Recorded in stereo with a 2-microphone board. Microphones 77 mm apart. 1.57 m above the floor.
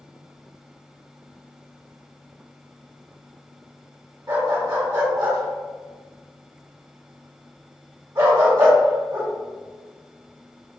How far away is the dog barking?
About 1.8 m.